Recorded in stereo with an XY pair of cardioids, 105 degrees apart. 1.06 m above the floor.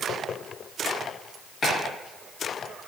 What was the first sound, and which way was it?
Chopping, 50° left.